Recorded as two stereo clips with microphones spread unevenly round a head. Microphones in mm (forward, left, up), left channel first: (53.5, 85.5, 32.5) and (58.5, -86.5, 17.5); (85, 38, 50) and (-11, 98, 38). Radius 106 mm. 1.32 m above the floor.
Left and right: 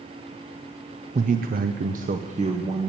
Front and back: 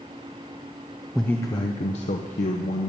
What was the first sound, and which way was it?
A man speaking, 125° right.